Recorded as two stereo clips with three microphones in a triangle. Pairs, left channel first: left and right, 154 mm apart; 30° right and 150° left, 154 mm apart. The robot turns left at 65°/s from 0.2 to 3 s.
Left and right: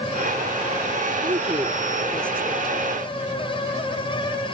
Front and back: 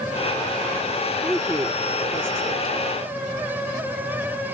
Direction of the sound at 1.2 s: 120° right.